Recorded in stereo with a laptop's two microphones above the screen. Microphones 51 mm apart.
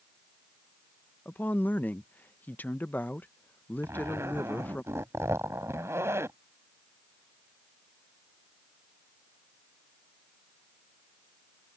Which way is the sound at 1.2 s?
40° left (ahead or behind).